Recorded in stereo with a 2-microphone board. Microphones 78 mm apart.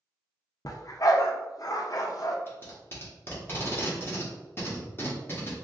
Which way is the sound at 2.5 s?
30° left (ahead or behind).